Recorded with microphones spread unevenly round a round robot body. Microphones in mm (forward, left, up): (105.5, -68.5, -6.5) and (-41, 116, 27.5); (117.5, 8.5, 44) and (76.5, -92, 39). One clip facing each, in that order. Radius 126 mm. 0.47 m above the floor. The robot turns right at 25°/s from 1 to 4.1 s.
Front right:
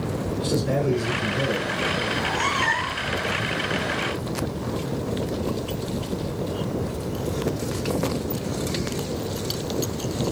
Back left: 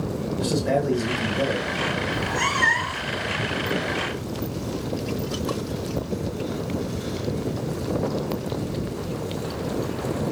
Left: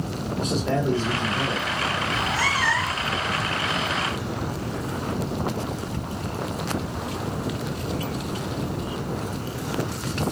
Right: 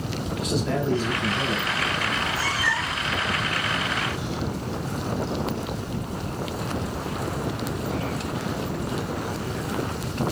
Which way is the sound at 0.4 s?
125° left.